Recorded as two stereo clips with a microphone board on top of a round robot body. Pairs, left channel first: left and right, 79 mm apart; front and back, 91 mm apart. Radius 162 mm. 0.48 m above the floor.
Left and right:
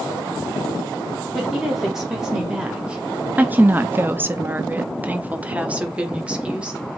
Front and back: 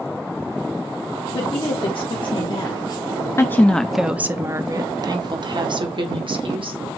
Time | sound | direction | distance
1.3 | a woman speaking | 5° right | 2 m